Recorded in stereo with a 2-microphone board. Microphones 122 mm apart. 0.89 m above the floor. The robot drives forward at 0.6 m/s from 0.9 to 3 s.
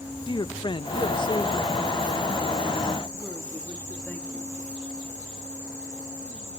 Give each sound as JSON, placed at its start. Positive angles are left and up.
{"t": 0.3, "sound": "a man speaking", "side_deg": 40, "distance_m": 0.6}